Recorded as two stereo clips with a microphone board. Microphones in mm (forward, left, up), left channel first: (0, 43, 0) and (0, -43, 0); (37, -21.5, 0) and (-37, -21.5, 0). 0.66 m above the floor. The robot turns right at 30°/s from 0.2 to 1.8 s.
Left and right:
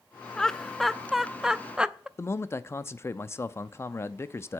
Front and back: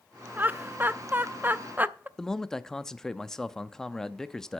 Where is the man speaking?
75° left, 0.6 m.